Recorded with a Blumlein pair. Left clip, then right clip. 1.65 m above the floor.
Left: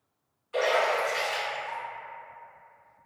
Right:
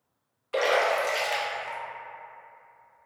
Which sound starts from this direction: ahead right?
A splash, at 0.5 s.